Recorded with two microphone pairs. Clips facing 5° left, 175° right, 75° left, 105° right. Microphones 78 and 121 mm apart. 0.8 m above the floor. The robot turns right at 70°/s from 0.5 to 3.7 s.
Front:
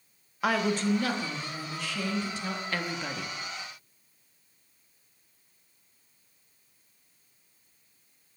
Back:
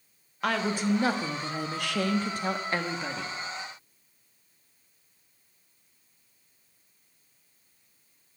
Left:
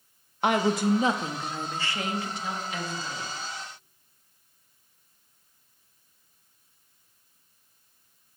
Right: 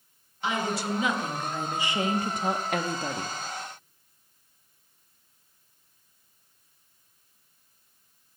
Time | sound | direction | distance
0.4 | a woman speaking | 90° left | 0.9 m